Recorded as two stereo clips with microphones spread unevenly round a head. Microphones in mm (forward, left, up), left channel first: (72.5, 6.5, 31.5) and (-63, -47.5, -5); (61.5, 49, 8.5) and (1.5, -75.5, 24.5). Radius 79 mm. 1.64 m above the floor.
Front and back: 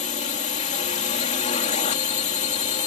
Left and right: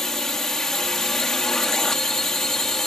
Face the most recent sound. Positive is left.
turn(degrees=-25)